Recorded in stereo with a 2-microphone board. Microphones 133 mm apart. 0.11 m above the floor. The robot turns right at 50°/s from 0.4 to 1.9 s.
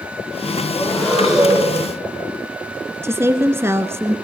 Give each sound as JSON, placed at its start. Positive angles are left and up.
{"t": 0.7, "sound": "breathing", "azimuth_deg": 145, "distance_m": 8.5}
{"t": 3.0, "sound": "a woman speaking", "side_deg": -20, "distance_m": 1.1}